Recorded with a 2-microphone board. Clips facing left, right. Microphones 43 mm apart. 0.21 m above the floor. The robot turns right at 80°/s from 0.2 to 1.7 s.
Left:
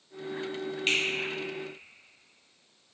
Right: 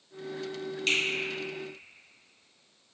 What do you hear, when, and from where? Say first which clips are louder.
0.9 s a finger snap: even; 25° left (ahead or behind), 1.2 m; by 1.0 s 20° left (ahead or behind), 1.2 m